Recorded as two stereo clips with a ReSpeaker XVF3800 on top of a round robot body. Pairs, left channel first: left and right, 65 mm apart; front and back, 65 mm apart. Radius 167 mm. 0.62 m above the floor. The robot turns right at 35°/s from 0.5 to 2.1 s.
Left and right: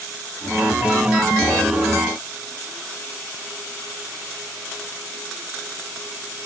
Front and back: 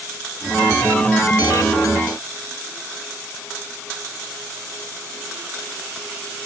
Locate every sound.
Only background noise.